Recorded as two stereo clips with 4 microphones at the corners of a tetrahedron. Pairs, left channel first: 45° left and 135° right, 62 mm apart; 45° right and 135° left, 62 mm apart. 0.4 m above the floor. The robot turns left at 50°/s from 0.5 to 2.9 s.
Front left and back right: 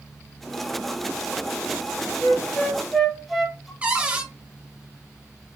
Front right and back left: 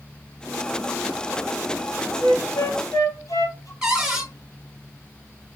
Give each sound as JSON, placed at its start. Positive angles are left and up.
{"t": 2.2, "sound": "a flute", "azimuth_deg": -10, "distance_m": 1.1}
{"t": 3.8, "sound": "a cupboard door", "azimuth_deg": -160, "distance_m": 1.1}